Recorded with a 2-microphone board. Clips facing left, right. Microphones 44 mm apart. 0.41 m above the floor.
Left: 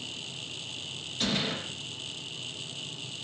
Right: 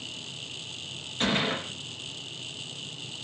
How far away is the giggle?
No giggle in this recording.